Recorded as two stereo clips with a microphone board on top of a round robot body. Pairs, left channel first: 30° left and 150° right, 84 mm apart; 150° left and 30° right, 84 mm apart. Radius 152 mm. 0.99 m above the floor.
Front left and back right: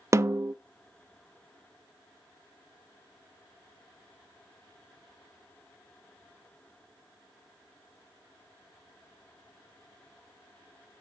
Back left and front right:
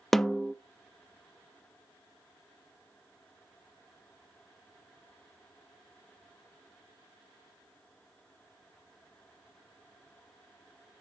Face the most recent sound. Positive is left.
turn(degrees=-125)